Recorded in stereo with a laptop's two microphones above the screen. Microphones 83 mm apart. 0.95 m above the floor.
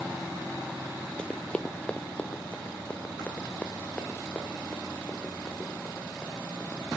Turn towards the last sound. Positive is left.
turn(degrees=15)  # may be behind; listen again after turning